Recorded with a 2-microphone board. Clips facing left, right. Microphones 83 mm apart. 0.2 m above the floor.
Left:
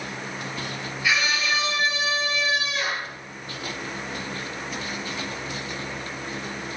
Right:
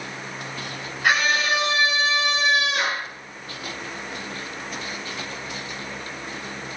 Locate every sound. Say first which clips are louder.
1.0 s a scream: right 4 dB; 50° right (ahead or behind), 4 m; by 3.1 s 65° right (ahead or behind), 3.5 m